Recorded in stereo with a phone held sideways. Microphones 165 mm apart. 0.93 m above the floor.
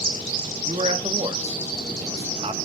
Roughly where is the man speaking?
Right.